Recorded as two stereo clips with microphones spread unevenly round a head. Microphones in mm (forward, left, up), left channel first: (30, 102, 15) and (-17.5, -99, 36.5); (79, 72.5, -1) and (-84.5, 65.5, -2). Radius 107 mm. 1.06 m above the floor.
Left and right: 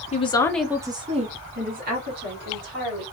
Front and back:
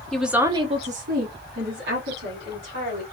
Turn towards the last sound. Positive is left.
turn(degrees=-145)